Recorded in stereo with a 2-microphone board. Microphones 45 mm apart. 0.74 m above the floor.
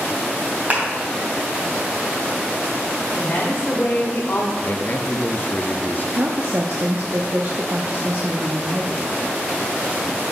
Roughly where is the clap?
Right.